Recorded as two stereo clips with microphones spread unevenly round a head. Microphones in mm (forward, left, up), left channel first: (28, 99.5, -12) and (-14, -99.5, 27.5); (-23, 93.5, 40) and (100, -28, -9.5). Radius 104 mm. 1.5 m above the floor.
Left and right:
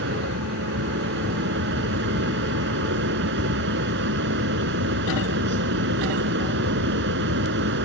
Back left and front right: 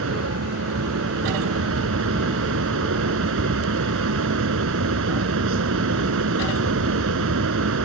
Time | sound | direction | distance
0.0 | a fan | 65° right | ?